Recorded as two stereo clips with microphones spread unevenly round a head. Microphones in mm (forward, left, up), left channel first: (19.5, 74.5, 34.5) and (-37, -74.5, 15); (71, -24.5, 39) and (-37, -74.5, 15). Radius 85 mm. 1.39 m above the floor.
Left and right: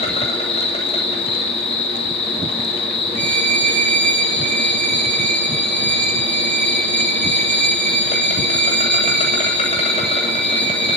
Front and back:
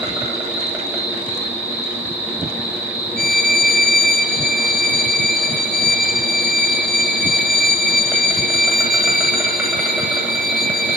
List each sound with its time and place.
0.0 s an insect: 125° left, 9 m
3.2 s a violin: 65° right, 9 m